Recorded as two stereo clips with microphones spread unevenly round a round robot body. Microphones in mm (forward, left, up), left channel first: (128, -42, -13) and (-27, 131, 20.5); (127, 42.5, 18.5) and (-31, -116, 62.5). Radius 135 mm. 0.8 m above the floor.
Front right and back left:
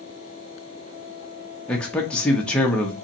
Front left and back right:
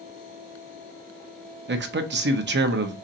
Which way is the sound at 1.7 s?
120° right.